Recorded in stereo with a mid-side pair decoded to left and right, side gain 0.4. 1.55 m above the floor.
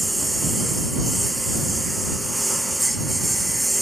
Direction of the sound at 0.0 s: 10° right.